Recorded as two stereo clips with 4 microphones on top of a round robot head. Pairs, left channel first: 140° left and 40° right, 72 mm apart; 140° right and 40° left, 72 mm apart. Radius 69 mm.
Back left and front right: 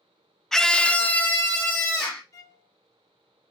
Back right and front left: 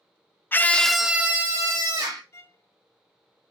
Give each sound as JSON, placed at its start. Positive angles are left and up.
{"t": 0.5, "sound": "a scream", "azimuth_deg": -145, "distance_m": 0.5}
{"t": 2.3, "sound": "a violin", "azimuth_deg": 170, "distance_m": 0.6}